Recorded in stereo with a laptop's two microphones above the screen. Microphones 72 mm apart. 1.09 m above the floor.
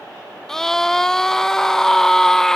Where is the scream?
5° left (ahead or behind), 0.8 m.